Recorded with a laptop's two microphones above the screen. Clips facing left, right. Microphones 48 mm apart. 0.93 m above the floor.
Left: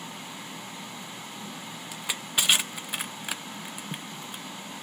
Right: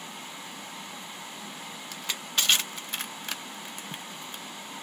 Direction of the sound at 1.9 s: 10° left (ahead or behind).